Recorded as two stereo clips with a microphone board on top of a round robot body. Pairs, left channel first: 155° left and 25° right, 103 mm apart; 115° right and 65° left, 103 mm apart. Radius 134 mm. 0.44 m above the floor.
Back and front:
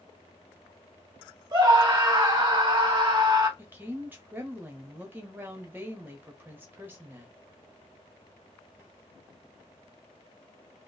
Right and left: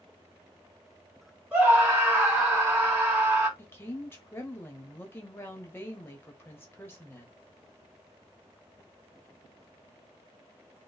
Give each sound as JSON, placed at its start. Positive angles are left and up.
{"t": 1.5, "sound": "a scream", "azimuth_deg": -5, "distance_m": 1.6}
{"t": 3.6, "sound": "a woman speaking", "azimuth_deg": -70, "distance_m": 1.2}